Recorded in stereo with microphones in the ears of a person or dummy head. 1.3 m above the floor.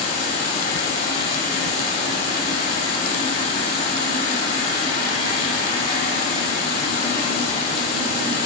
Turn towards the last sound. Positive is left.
turn(degrees=30)  # may be behind; listen again after turning